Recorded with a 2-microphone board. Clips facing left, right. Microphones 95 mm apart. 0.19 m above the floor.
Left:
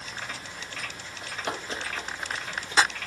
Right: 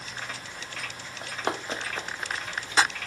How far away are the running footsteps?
About 1.4 m.